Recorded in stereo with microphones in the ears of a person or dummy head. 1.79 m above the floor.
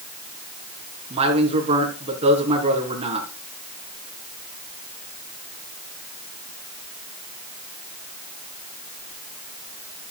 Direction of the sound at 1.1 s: 35° right (ahead or behind).